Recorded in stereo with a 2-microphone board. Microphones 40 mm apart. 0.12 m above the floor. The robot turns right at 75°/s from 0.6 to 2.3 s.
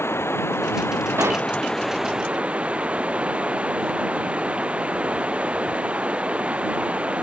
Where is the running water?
85° left; by 7.2 s 150° right.